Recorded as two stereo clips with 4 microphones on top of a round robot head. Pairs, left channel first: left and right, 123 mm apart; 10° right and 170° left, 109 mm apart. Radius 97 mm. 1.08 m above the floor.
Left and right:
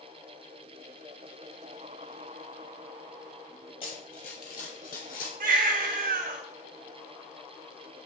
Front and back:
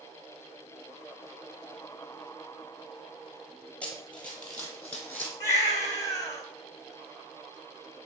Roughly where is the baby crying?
Right.